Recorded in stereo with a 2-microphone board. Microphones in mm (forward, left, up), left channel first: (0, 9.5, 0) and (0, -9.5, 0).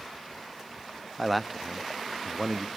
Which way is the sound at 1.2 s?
Centre (ahead or behind).